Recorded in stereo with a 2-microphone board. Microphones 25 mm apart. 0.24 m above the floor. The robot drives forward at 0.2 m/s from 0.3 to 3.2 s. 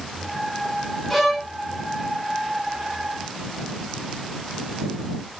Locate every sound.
1.1 s a violin: centre (ahead or behind), 0.9 m